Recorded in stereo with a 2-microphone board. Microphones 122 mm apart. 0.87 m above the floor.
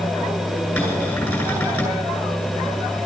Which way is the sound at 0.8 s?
20° left (ahead or behind).